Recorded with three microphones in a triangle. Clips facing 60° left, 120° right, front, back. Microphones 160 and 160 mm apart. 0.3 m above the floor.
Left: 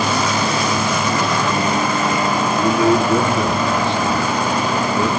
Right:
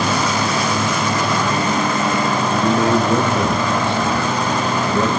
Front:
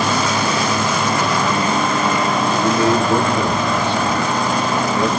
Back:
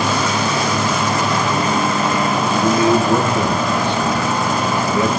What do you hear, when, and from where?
2.5 s a man speaking: 105° right, 5.5 m